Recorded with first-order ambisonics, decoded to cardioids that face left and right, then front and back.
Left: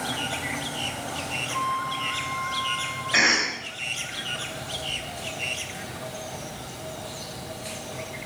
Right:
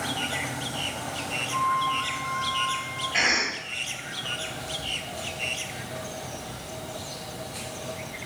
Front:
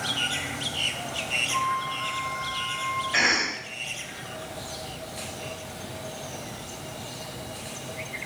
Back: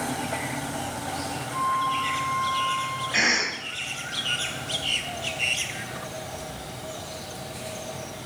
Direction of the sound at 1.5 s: 50° left.